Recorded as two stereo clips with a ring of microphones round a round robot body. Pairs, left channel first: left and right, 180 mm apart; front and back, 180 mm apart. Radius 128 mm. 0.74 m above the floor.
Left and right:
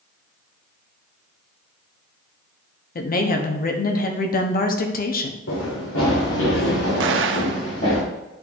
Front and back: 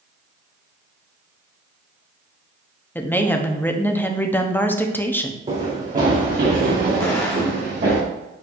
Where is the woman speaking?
75° left, 1.0 m.